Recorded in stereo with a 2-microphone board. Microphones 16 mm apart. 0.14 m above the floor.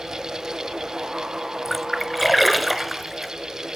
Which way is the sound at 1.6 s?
5° right (ahead or behind).